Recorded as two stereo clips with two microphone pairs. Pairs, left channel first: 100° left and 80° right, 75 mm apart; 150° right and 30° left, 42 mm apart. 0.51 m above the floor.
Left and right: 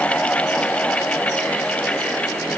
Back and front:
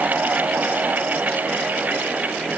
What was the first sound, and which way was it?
Only background noise.